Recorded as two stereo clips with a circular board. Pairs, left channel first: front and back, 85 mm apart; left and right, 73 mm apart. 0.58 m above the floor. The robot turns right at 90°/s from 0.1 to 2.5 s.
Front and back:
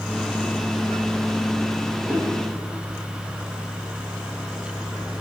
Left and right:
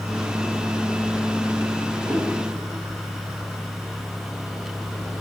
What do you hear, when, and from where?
2.0 s a whoosh: 120° right, 4 m; by 2.3 s 95° right, 4 m